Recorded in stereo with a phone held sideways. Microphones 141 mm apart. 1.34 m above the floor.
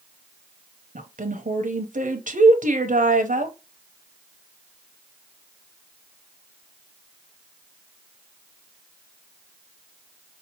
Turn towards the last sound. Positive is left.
turn(degrees=-70)  # may be behind; listen again after turning